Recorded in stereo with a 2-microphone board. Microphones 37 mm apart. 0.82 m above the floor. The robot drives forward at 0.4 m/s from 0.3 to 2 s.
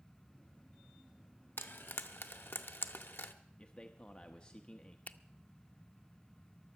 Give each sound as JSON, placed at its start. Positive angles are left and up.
{"t": 1.6, "sound": "frying", "side_deg": 75, "distance_m": 0.9}
{"t": 3.6, "sound": "a man speaking", "side_deg": 30, "distance_m": 0.8}
{"t": 5.1, "sound": "a finger snap", "side_deg": 45, "distance_m": 0.6}